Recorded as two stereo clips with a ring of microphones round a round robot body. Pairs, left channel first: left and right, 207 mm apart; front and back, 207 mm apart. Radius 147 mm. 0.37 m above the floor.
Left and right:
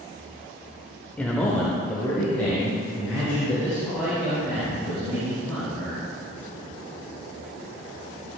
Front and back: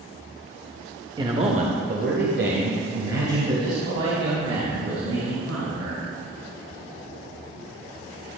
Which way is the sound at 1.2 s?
160° left.